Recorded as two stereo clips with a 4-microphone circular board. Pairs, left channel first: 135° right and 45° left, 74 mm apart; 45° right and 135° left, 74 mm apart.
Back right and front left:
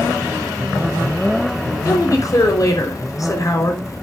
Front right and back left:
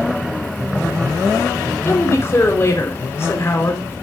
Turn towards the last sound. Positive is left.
turn(degrees=-95)